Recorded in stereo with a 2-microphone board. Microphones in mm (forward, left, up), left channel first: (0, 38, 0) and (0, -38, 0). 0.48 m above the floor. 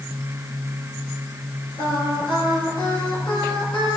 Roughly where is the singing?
Left.